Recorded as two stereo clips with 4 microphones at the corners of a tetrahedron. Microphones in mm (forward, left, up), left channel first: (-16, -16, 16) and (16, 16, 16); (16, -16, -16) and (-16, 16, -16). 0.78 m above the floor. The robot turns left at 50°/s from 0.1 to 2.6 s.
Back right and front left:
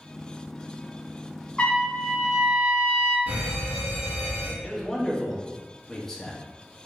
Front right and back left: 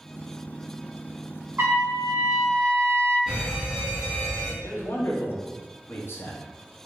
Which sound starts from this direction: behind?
A trumpet, at 1.6 s.